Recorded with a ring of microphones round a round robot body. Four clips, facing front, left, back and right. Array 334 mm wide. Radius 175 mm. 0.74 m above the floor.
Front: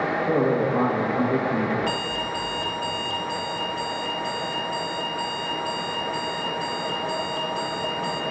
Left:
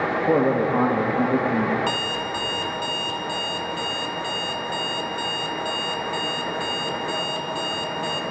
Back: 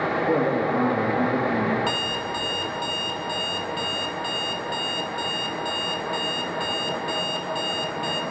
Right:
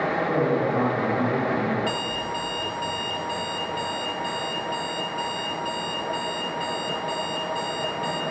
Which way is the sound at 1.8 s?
140° left.